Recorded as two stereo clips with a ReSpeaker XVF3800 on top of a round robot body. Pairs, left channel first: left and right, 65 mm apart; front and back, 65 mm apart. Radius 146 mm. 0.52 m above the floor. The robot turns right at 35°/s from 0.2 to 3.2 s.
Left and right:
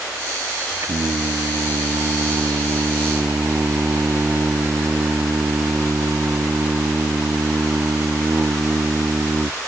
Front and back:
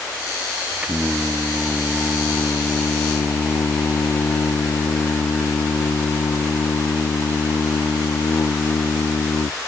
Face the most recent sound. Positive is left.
turn(degrees=-35)